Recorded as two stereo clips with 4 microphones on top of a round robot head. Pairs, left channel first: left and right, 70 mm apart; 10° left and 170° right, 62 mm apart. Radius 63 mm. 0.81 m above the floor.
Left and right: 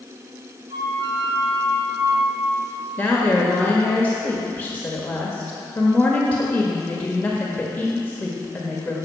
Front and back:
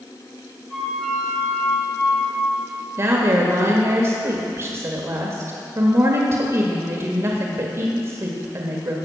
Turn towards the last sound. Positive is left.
turn(degrees=155)